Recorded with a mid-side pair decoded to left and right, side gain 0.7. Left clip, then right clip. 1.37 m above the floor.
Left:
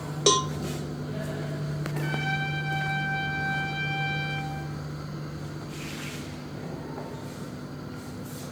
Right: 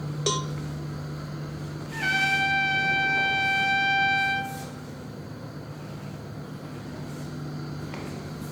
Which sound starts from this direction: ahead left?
A cowbell, at 0.3 s.